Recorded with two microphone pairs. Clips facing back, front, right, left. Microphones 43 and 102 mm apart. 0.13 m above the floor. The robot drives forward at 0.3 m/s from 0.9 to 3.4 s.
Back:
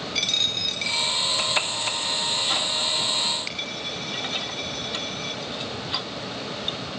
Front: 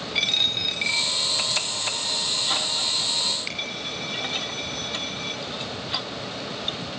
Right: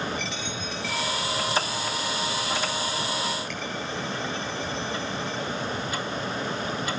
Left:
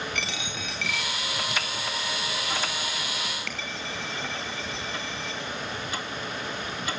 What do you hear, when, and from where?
0.1 s a dropped coin: 70° left, 4 m; by 5.4 s 80° left, 4 m